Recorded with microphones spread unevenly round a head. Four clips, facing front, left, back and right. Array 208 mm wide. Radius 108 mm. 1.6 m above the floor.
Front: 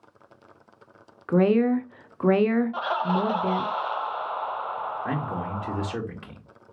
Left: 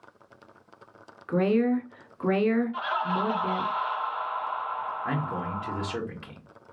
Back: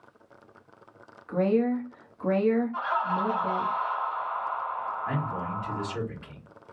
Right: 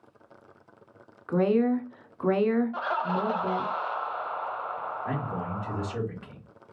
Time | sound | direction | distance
1.3 | a woman speaking | 10° left | 0.6 m
2.7 | laughter | 35° right | 0.6 m
5.0 | a man speaking | 20° left | 1.8 m